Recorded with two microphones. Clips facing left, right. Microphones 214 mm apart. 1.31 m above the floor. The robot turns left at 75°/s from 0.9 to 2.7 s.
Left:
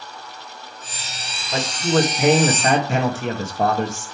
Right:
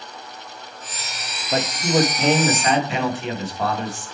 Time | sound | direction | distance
1.5 | a man speaking | 135° right | 1.9 m